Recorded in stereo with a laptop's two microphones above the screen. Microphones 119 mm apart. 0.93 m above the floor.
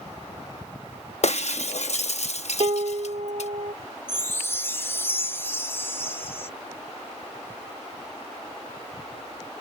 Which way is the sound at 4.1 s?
20° left (ahead or behind).